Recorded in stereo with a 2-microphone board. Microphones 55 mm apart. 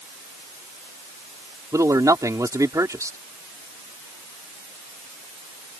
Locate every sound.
1.7 s a man speaking: 85° right